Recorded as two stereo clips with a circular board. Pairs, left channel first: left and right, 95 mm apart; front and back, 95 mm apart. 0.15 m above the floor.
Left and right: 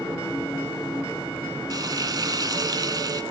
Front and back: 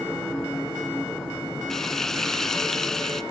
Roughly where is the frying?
Right.